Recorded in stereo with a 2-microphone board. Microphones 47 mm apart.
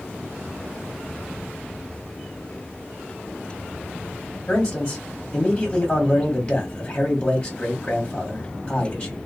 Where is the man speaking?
20° left (ahead or behind), 0.9 m.